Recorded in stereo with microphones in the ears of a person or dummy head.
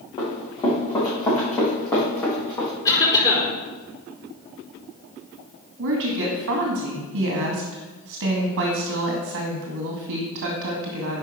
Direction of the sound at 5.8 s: 70° right (ahead or behind).